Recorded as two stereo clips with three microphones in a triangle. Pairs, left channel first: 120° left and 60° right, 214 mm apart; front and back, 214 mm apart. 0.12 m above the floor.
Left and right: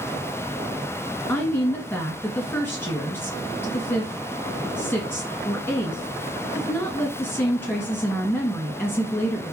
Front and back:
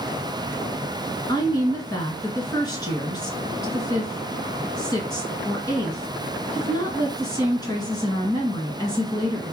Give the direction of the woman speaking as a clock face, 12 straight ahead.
10 o'clock.